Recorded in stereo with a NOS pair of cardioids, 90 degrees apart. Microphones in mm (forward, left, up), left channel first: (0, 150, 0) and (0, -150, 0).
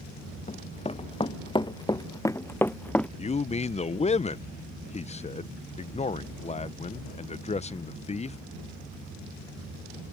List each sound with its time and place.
0.5 s running footsteps: 25° left; by 3.1 s 5° left
3.2 s a man speaking: 20° left